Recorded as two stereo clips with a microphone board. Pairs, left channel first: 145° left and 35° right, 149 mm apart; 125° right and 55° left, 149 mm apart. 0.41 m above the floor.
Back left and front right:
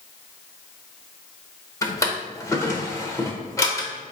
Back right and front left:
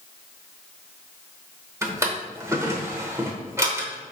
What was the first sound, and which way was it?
A drawer, 100° left.